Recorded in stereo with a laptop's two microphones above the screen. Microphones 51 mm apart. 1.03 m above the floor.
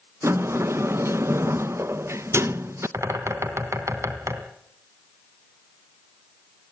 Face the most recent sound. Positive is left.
turn(degrees=-70)  # may be behind; listen again after turning